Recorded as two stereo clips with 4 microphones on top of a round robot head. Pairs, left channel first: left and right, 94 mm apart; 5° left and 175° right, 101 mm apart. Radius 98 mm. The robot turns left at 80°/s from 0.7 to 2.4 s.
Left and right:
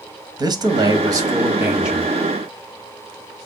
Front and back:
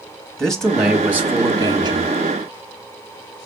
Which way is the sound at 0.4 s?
75° right.